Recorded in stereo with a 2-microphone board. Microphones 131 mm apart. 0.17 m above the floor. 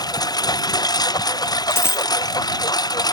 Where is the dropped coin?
20° left (ahead or behind).